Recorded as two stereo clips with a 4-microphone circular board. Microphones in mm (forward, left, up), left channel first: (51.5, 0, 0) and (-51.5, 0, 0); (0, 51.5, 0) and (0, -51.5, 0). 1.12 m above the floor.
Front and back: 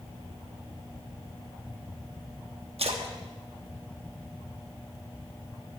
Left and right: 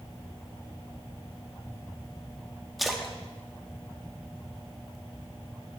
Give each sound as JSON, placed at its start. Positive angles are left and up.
{"t": 2.8, "sound": "a splash", "azimuth_deg": 180, "distance_m": 1.2}